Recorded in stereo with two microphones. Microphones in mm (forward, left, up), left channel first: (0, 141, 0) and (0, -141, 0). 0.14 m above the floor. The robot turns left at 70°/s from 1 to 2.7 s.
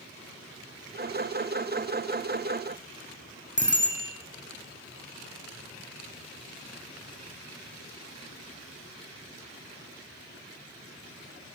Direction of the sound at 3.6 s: 40° left (ahead or behind).